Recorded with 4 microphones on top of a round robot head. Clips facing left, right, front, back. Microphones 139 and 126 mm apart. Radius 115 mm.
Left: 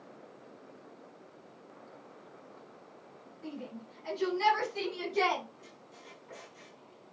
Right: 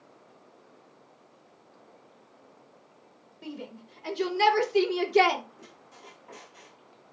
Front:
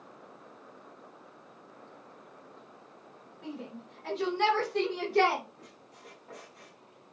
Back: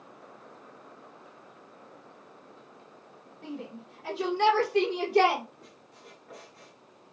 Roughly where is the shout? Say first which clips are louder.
Right 2 dB, back 2 dB; right.